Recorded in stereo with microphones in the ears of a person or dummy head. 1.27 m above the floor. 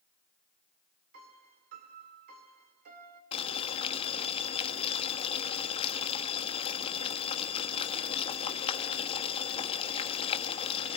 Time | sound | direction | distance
1.1 | a piano | 50° right (ahead or behind) | 1.9 m
3.3 | boiling | 30° left (ahead or behind) | 1.4 m